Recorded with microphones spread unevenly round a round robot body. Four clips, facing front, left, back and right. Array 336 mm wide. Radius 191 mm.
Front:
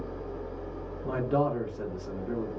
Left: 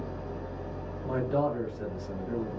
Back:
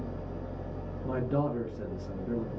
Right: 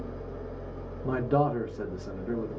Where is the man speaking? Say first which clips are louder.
Right 2 dB, front 3 dB; 140° right, 1.0 m.